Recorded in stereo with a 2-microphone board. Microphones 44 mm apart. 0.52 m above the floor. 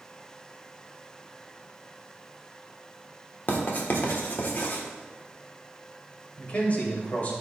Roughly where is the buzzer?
No buzzer in this recording.